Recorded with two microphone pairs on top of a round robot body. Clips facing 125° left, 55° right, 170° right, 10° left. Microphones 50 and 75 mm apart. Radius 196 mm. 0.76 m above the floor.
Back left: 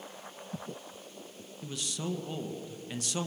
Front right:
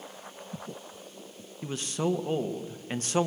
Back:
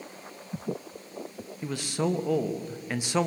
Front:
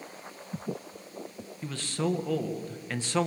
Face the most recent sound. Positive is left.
turn(degrees=-100)